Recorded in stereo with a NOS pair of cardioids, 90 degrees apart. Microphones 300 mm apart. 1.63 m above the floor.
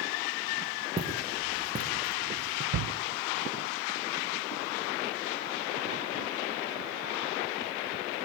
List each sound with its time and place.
1.0 s footsteps: 15° right, 7.5 m; by 2.6 s 30° right, 7.5 m
2.7 s a shout: 65° right, 1.3 m